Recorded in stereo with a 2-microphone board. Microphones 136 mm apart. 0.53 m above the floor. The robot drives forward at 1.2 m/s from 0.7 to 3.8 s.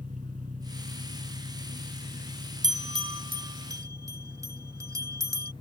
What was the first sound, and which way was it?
An engine running, 70° right (ahead or behind).